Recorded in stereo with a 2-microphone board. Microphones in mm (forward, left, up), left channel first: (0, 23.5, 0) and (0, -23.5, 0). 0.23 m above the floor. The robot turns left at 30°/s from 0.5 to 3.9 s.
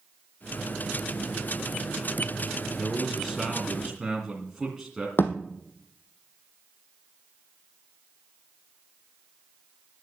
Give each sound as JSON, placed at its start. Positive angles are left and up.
{"t": 2.8, "sound": "a man speaking", "azimuth_deg": 20, "distance_m": 2.0}
{"t": 5.2, "sound": "a thud", "side_deg": 55, "distance_m": 2.0}